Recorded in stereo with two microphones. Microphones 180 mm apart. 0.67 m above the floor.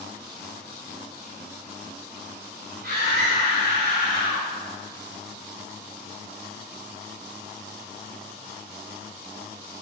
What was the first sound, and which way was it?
A scream, 65° right (ahead or behind).